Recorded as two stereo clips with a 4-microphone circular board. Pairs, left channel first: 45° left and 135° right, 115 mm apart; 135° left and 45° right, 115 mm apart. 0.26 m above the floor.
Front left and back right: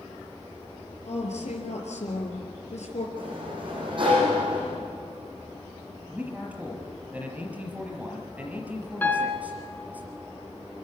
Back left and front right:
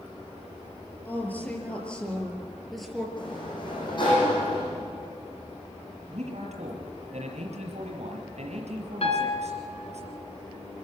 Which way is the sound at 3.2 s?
Straight behind.